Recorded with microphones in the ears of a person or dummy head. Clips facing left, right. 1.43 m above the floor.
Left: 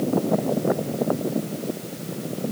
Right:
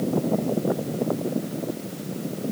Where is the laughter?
I don't hear laughter.